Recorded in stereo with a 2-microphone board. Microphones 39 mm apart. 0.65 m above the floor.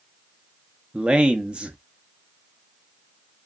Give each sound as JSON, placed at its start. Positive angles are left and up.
{"t": 0.9, "sound": "a man speaking", "side_deg": -25, "distance_m": 0.8}